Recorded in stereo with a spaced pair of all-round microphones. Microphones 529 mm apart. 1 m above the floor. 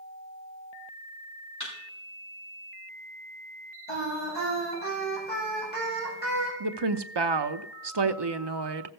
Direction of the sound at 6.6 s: 50° right (ahead or behind).